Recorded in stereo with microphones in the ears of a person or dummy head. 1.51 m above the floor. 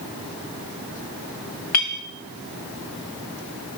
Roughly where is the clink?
Left.